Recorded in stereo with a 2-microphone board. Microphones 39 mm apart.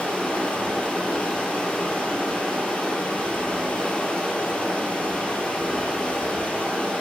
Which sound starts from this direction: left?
Running water, at 0.0 s.